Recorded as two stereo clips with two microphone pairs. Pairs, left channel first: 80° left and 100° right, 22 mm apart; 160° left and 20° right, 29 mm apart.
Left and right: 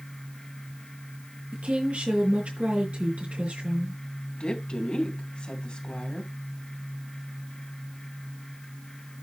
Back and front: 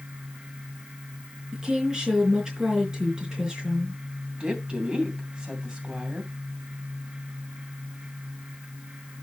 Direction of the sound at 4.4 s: 40° left.